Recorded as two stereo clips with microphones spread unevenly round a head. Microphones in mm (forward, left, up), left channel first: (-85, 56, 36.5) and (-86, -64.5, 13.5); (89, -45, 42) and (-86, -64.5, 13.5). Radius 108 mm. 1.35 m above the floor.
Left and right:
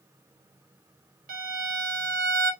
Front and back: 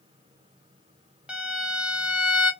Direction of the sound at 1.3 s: 85° right.